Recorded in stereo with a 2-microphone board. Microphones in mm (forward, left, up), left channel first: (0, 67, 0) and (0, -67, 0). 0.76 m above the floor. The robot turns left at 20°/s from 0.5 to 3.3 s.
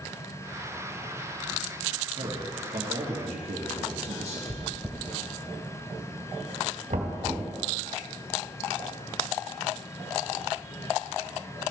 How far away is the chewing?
About 1.3 m.